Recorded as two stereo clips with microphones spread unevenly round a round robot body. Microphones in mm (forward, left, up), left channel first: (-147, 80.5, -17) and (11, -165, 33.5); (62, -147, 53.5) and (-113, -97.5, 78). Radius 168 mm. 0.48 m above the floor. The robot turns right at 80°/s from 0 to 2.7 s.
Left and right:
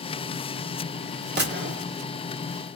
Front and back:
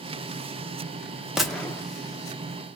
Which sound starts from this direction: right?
A gunshot, at 1.4 s.